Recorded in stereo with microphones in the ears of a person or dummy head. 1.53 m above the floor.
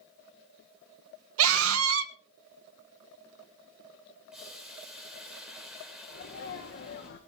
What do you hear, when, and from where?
1.4 s a scream: 80° right, 1.7 m
4.3 s boiling: centre (ahead or behind), 2 m
6.1 s a sneeze: 55° left (ahead or behind), 2 m